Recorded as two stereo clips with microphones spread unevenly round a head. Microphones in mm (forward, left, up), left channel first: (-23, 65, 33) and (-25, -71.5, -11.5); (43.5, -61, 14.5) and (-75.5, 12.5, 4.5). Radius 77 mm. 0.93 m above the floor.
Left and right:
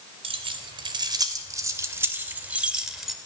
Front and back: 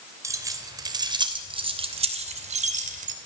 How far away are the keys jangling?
About 3 m.